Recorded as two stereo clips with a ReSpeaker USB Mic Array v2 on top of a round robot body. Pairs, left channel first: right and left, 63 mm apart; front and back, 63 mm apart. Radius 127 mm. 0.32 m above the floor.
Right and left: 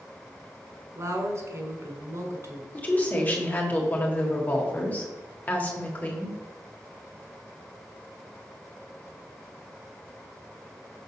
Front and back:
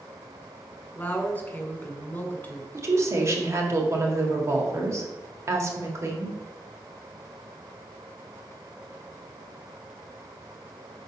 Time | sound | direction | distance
0.9 | a woman speaking | 60° left | 2.0 m
2.7 | a woman speaking | 150° right | 1.8 m